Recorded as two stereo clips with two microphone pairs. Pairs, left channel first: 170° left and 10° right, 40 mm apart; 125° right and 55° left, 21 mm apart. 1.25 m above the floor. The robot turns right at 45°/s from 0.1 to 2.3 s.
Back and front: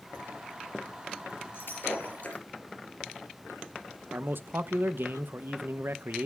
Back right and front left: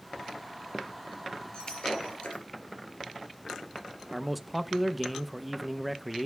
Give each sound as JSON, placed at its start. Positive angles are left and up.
{"t": 1.5, "sound": "breaking glass", "azimuth_deg": -170, "distance_m": 3.5}
{"t": 4.1, "sound": "a man speaking", "azimuth_deg": -35, "distance_m": 0.7}